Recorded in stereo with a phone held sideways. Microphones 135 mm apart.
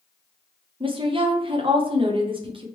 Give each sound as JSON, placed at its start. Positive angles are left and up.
{"t": 0.8, "sound": "a woman speaking", "side_deg": -40, "distance_m": 0.7}